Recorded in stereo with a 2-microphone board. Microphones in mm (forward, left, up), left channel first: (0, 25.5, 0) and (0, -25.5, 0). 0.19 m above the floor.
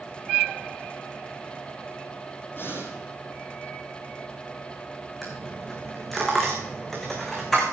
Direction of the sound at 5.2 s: 5° left (ahead or behind).